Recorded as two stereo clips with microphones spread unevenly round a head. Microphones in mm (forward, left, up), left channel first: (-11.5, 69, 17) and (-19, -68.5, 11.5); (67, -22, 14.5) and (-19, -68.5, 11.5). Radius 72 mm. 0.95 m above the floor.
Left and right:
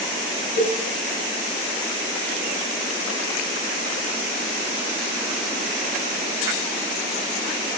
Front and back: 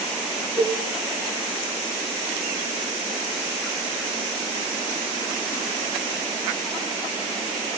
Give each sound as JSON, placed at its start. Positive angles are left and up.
{"t": 0.6, "sound": "a cowbell", "azimuth_deg": 105, "distance_m": 1.7}